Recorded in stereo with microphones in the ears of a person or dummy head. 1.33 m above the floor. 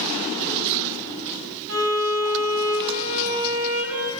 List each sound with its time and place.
1.7 s a violin: 75° right (ahead or behind), 3.5 m